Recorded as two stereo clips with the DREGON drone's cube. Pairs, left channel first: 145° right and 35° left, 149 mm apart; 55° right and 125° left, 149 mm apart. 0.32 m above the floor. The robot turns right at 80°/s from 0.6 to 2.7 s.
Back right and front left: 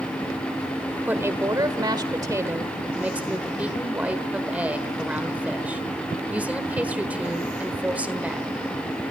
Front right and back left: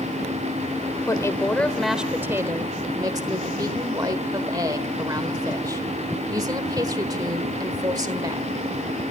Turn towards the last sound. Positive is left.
turn(degrees=105)